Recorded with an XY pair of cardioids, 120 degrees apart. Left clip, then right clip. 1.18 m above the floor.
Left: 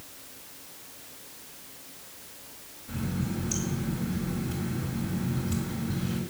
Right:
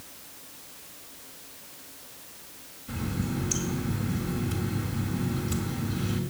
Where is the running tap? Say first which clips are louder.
Right 1 dB; 25° right, 4 m.